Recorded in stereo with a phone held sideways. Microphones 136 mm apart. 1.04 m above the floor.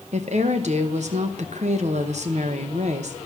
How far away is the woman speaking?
About 0.8 m.